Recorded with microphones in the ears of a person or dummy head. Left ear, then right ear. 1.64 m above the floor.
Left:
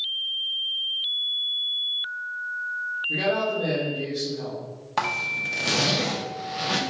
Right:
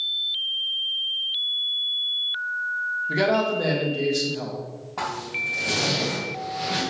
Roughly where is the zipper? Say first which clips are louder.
Left 3 dB; left.